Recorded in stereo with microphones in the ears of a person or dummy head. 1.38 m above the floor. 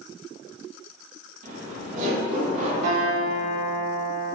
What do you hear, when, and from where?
1.4 s laughter: 45° right (ahead or behind), 1.3 m; by 2.7 s 40° right (ahead or behind), 2 m
2.8 s a guitar: 50° right (ahead or behind), 1.3 m